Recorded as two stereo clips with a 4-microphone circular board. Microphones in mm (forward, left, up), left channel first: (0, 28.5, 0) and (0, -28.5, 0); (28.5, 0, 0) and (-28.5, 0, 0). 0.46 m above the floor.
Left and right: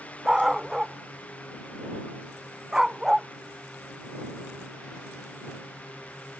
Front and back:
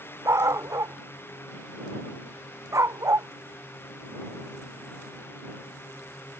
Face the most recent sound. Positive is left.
turn(degrees=-170)